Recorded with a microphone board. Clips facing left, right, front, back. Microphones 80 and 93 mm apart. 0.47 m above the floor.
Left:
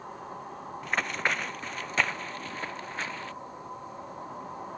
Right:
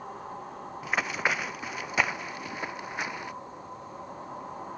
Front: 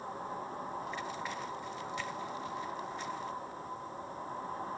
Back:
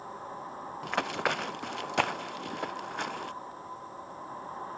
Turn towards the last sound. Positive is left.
turn(degrees=-165)